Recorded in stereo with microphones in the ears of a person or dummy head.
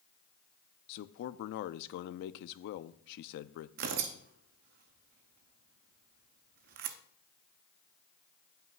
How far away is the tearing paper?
About 0.5 m.